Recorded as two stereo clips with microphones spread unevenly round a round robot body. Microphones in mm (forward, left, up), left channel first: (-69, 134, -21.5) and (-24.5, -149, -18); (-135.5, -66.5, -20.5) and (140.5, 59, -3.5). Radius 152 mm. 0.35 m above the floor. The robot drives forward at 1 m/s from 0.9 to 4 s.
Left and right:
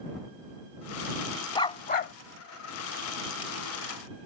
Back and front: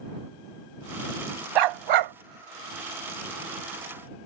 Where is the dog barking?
25° left; by 2.1 s 50° left.